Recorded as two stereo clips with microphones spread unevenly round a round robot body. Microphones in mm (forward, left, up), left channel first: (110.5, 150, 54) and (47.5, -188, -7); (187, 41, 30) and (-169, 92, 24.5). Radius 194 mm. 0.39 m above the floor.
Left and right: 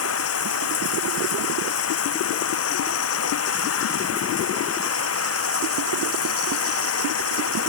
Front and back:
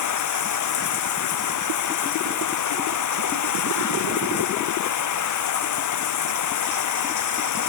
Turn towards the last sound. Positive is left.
turn(degrees=30)